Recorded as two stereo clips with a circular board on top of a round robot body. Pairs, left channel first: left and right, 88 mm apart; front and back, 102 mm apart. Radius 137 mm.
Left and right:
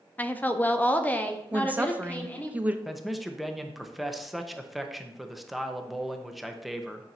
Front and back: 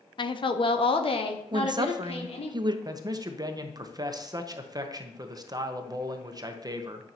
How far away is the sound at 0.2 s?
About 0.9 m.